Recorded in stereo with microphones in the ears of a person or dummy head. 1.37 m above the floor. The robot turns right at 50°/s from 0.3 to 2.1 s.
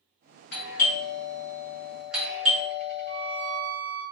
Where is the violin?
50° left (ahead or behind), 1.6 m.